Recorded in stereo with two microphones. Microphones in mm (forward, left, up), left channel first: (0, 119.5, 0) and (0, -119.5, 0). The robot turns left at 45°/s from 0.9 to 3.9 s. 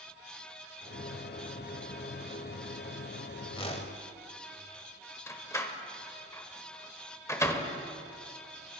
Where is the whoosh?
20° left (ahead or behind), 1.1 m; by 4.0 s 30° left (ahead or behind), 1.1 m.